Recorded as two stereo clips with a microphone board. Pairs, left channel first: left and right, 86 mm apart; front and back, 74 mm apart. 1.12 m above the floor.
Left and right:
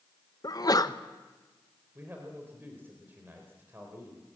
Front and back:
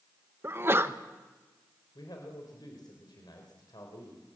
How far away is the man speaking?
About 4 m.